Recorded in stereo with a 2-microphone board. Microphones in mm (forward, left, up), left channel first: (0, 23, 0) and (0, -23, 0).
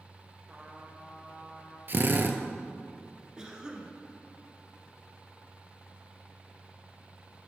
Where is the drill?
45° right (ahead or behind), 0.7 m.